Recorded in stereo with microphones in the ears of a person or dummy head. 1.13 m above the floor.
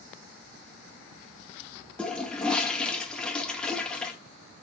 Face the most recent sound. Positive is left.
turn(degrees=0)  # may be behind; listen again after turning